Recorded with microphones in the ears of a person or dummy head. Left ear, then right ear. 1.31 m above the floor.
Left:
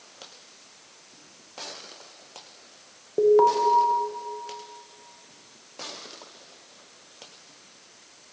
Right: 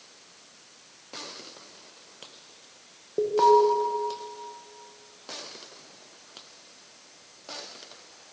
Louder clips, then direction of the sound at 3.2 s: Left 1 dB; 15° left (ahead or behind).